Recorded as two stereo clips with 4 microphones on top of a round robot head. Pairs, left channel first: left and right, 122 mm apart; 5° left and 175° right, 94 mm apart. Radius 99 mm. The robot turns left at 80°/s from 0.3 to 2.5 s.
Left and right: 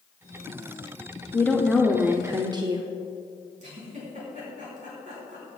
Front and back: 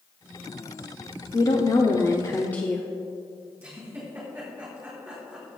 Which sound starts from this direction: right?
A giggle, at 3.6 s.